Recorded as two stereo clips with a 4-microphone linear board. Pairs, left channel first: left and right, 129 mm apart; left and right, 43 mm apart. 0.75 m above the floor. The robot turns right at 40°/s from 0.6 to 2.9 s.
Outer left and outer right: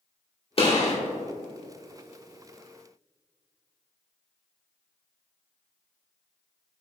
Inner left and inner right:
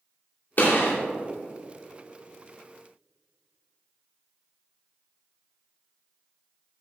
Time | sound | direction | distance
0.6 | a gunshot | 50° left (ahead or behind) | 2.5 m